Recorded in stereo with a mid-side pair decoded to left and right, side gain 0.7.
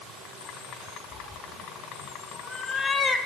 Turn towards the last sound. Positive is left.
turn(degrees=30)